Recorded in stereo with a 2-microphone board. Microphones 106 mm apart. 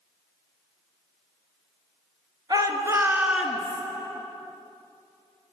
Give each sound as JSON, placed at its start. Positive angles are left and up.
{"t": 2.5, "sound": "a shout", "side_deg": -40, "distance_m": 1.9}